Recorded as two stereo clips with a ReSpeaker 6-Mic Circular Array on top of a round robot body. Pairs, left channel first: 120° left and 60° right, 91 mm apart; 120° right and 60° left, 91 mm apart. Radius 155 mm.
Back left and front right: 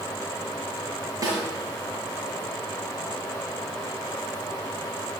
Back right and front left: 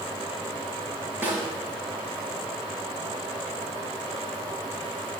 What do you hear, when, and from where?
1.2 s a snare drum: 5° right, 6.5 m